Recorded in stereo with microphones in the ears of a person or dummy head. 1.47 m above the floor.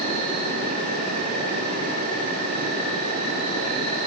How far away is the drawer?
I don't hear a drawer.